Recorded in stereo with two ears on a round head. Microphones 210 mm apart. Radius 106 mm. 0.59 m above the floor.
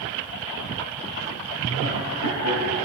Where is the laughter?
55° left (ahead or behind), 3 m; by 2.8 s 75° left (ahead or behind), 3.5 m.